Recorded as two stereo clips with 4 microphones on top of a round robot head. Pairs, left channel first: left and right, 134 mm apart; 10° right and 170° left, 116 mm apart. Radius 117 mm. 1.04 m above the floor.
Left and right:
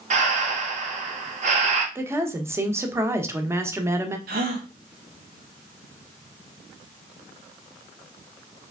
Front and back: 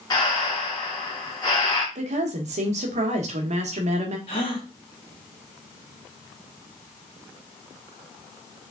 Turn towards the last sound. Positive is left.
turn(degrees=-70)